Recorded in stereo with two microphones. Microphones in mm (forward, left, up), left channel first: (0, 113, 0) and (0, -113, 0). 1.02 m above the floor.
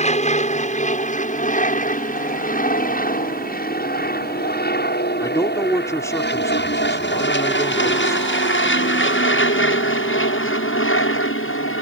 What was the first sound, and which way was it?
An aircraft, 30° left (ahead or behind).